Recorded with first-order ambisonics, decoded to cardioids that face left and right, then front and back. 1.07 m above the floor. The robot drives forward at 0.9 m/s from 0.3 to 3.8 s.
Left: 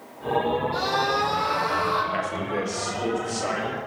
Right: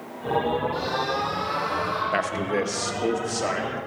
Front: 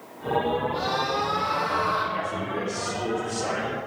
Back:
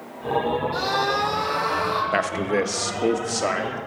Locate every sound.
0.7 s a scream: 150° left, 3 m; by 2.0 s 155° left, 4 m
2.1 s a man speaking: 155° right, 0.9 m; by 3.8 s 170° right, 2.5 m